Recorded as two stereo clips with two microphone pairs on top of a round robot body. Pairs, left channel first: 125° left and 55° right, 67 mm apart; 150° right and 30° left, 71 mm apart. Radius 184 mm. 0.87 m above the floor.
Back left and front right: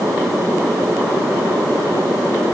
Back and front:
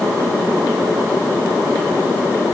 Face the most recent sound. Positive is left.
No sound to turn to.